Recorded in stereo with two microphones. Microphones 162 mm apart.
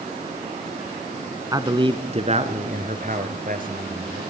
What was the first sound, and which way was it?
A man speaking, 20° right (ahead or behind).